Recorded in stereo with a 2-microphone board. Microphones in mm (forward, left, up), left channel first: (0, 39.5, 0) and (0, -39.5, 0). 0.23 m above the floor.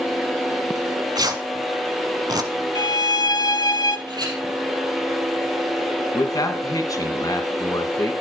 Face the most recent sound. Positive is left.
turn(degrees=50)  # may be behind; listen again after turning